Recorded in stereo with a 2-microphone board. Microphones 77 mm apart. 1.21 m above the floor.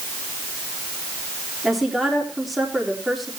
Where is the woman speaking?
Centre (ahead or behind), 4 m.